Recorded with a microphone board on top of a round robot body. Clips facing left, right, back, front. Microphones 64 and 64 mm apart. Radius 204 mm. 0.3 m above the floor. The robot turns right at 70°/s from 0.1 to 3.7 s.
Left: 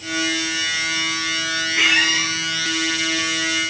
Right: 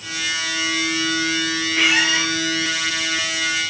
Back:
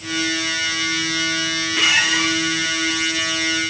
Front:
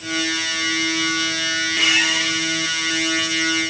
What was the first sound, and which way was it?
A squeak, 170° left.